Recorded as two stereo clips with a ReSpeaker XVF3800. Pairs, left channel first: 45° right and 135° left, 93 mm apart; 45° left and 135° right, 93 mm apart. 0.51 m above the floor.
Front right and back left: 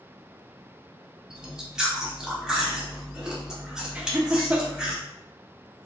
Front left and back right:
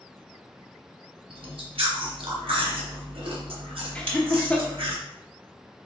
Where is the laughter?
95° left, 0.7 m.